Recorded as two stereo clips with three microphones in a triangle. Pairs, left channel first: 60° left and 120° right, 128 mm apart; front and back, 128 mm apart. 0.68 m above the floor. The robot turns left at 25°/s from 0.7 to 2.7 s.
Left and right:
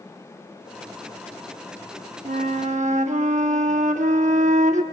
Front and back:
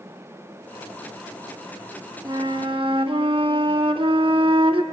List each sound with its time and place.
2.2 s a flute: 125° right, 0.7 m; by 4.8 s 135° right, 0.7 m